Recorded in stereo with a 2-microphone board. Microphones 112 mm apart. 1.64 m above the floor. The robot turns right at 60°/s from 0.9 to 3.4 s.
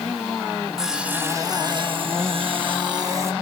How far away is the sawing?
About 1.1 m.